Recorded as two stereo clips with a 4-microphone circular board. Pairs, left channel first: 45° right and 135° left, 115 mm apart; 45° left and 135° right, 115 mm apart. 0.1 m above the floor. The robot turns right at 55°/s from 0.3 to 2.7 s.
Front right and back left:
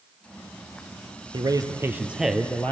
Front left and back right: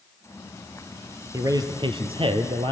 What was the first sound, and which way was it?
A man speaking, 170° left.